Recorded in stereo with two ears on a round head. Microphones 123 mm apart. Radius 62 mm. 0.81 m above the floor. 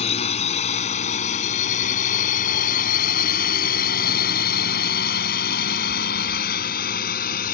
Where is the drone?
50° left (ahead or behind); by 7.5 s 75° left (ahead or behind).